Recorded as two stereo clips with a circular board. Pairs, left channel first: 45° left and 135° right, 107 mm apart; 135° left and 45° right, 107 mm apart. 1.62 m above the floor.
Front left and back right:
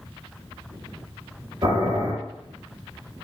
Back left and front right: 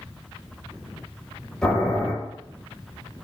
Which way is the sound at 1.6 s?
145° right.